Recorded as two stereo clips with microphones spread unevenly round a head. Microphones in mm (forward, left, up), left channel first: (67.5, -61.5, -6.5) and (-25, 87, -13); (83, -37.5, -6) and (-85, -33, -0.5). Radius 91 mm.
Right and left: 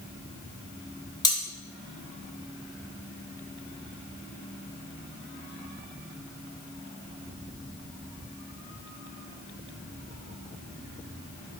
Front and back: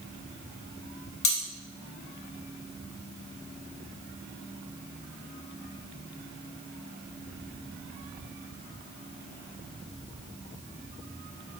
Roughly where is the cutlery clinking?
Ahead.